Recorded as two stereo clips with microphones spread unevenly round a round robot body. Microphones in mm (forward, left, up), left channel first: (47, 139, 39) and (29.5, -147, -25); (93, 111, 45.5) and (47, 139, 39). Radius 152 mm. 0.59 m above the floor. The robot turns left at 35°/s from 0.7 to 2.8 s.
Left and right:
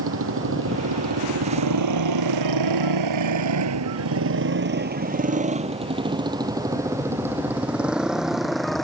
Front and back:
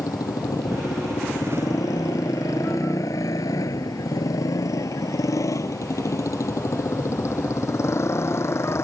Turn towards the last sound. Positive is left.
turn(degrees=0)